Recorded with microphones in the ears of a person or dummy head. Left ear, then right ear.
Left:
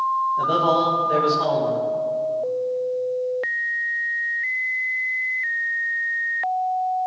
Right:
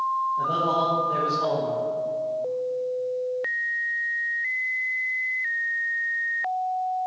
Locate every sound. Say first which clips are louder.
0.4 s a man speaking: left 6 dB; 55° left (ahead or behind), 1.7 m